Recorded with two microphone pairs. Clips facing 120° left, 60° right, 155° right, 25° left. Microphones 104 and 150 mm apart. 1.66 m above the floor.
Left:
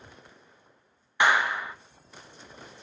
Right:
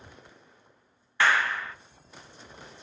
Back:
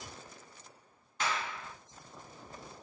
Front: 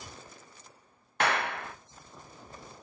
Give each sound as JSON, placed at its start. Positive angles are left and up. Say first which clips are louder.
{"t": 1.2, "sound": "a clap", "louder": "left 1 dB, front 7 dB", "azimuth_deg": 45, "distance_m": 0.7}